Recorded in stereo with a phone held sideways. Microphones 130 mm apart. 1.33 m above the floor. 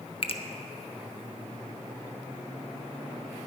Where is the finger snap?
50° left (ahead or behind), 0.6 m.